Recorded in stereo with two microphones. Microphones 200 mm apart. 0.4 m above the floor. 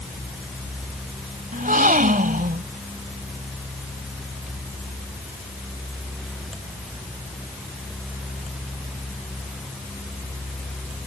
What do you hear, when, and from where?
1.5 s a gasp: 45° right (ahead or behind)